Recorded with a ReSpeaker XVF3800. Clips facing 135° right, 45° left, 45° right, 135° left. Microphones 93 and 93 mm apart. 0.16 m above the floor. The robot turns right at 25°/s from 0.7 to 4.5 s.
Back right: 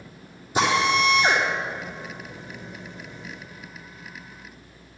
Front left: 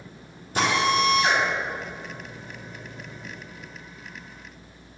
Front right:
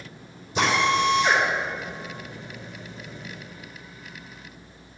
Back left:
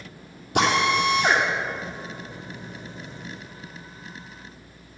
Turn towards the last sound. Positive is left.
turn(degrees=-120)